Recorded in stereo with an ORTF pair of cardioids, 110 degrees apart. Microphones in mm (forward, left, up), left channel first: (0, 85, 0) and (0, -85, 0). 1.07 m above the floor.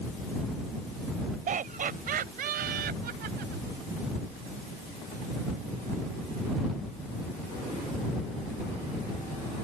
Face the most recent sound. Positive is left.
turn(degrees=-70)